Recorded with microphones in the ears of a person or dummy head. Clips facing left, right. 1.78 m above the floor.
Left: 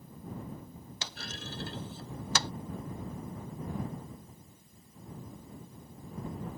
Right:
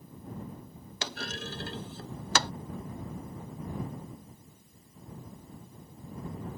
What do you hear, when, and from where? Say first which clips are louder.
1.0 s a clunk: right 7 dB; 60° right (ahead or behind)